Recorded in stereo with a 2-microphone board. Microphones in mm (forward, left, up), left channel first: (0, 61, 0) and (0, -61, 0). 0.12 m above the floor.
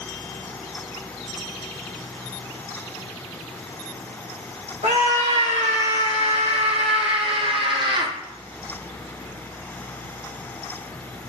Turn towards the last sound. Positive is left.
turn(degrees=-40)  # may be behind; listen again after turning